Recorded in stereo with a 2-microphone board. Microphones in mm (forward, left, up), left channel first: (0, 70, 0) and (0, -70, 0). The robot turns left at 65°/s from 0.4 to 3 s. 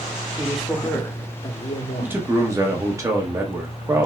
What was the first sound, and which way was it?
A man speaking, 165° right.